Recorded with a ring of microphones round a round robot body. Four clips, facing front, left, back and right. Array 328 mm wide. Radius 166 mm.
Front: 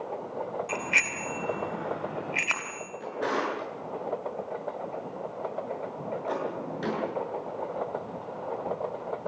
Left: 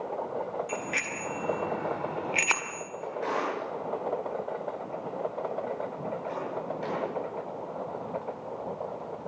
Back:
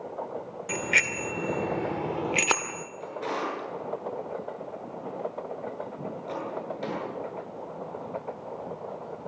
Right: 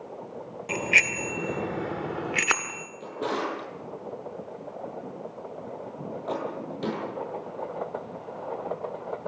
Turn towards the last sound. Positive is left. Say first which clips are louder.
# right 1 dB, front 2 dB
turn(degrees=-65)